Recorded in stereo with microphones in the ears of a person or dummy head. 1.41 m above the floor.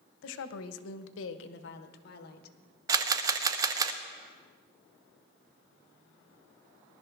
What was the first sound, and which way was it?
A woman speaking, 70° left (ahead or behind).